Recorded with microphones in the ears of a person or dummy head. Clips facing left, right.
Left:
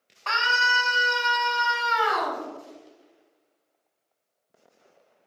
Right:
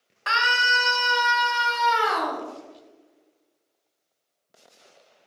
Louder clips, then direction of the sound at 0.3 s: Right 1 dB; 15° right (ahead or behind).